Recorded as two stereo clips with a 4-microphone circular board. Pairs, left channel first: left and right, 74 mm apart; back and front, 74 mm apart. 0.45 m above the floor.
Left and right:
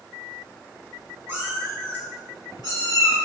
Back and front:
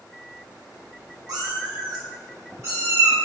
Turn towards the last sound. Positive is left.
turn(degrees=70)